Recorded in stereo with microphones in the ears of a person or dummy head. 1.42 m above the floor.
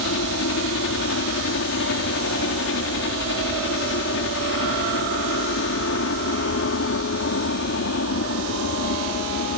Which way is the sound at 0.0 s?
60° left (ahead or behind).